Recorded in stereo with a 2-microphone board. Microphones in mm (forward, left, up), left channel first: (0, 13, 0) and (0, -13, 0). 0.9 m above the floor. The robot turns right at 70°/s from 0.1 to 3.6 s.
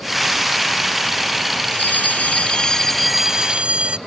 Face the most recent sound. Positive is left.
turn(degrees=-140)